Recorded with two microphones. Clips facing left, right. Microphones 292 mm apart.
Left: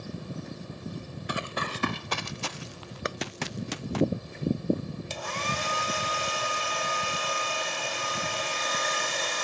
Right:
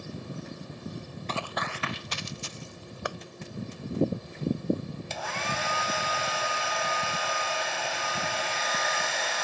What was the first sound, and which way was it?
Running footsteps, 15° left (ahead or behind).